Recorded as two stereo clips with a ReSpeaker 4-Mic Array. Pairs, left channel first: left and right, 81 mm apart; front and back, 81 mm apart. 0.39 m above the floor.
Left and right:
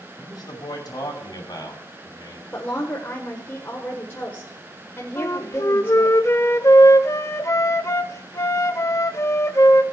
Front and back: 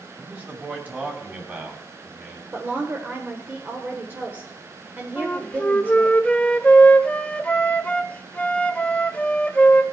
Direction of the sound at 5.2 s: 65° left.